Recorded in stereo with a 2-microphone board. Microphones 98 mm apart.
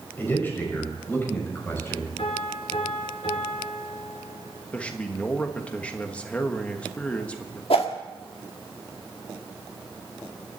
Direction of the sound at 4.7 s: 15° left (ahead or behind).